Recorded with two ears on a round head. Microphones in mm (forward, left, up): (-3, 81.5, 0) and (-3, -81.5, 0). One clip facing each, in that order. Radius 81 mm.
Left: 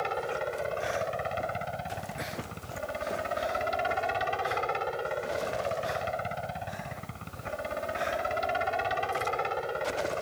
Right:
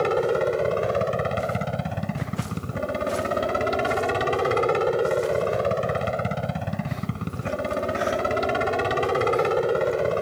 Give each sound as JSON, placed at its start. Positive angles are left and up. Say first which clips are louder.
{"t": 0.0, "sound": "a helicopter", "louder": "right 11 dB", "side_deg": -65}